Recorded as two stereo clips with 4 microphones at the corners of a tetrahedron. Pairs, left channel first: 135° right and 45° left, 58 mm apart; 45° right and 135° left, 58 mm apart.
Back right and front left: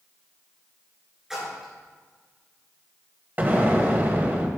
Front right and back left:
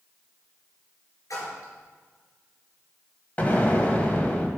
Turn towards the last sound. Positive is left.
turn(degrees=0)